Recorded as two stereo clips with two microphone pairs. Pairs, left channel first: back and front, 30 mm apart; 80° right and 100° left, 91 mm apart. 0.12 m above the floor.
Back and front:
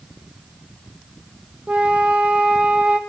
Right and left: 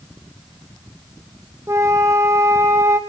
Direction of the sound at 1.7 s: 45° left.